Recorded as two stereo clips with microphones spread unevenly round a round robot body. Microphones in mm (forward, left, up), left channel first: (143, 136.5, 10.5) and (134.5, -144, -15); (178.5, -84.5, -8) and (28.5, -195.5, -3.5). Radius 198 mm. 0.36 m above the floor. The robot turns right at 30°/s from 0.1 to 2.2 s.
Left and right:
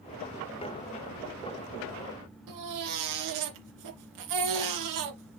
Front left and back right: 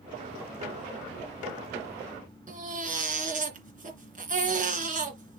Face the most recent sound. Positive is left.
turn(degrees=-95)